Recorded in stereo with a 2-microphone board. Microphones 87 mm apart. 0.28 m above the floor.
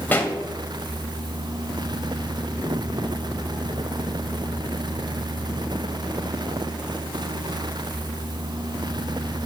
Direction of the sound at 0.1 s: 20° left (ahead or behind).